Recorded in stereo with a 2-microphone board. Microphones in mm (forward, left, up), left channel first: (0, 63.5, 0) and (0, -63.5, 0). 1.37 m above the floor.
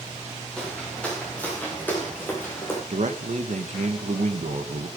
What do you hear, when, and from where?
0.6 s footsteps: 5° left (ahead or behind), 5 m; by 2.8 s 20° left (ahead or behind), 4.5 m
2.9 s a man speaking: 75° right (ahead or behind), 1.8 m